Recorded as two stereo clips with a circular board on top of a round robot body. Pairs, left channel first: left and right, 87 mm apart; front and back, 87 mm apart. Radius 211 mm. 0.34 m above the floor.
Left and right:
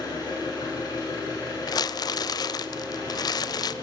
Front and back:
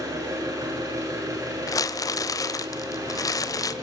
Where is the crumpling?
50° left, 0.9 m.